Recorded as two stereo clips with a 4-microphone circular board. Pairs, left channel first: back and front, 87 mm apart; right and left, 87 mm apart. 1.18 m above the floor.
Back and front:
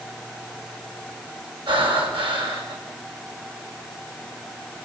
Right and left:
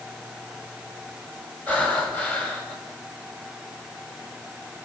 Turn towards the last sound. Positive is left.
turn(degrees=-15)